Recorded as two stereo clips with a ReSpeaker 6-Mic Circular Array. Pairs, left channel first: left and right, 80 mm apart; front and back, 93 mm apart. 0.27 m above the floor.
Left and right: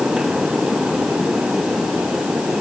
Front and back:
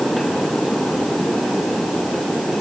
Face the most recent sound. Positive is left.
No sound to turn to.